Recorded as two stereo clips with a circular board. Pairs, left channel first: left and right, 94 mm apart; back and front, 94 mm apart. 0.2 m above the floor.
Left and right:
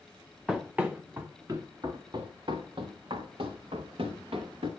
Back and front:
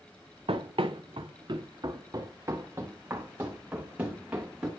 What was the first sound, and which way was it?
Running footsteps, 5° right.